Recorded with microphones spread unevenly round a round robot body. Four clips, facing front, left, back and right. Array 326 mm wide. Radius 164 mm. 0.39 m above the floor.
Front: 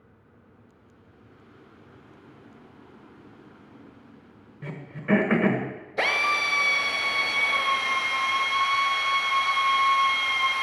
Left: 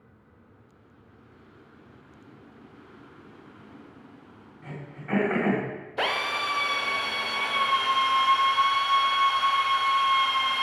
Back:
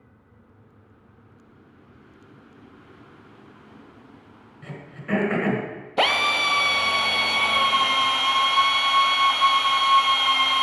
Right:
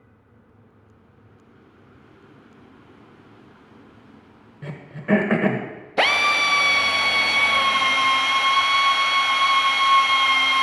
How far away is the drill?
About 1.1 m.